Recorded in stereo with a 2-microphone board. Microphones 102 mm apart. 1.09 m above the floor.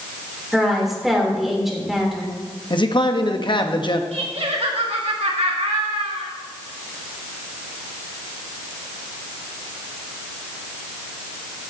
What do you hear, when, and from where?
0.5 s a woman speaking: 5° right (ahead or behind), 3.5 m
2.7 s a man speaking: 50° left (ahead or behind), 1.1 m
4.1 s laughter: 80° right, 1.8 m